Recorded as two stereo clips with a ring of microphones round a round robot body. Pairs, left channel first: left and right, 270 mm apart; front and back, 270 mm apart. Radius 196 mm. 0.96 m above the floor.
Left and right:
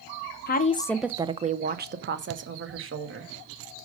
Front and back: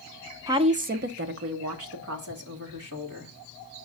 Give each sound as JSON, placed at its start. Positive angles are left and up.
{"t": 0.5, "sound": "a woman speaking", "azimuth_deg": 110, "distance_m": 0.5}